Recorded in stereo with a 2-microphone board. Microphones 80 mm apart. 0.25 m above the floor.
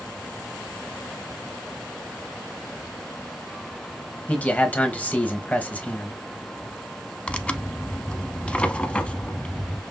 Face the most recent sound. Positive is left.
turn(degrees=15)  # may be behind; listen again after turning